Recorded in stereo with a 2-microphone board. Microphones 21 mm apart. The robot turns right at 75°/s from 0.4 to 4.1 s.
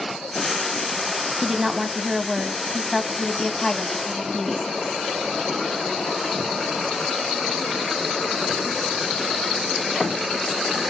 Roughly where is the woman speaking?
Right.